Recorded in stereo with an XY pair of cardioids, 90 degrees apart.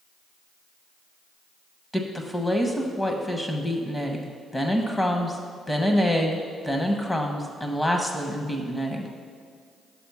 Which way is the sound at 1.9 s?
20° left.